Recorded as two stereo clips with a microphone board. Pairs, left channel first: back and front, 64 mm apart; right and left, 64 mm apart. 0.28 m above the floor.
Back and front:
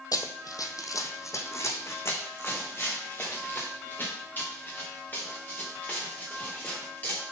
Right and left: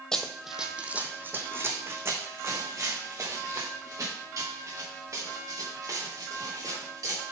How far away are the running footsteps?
About 0.6 m.